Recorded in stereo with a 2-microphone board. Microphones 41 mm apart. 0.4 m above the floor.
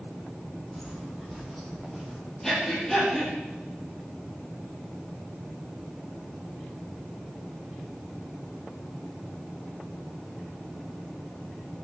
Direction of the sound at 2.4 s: 10° left (ahead or behind).